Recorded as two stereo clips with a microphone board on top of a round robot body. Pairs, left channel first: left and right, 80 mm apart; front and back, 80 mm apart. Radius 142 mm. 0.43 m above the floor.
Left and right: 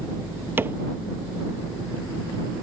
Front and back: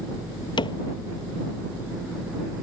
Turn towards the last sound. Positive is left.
turn(degrees=-25)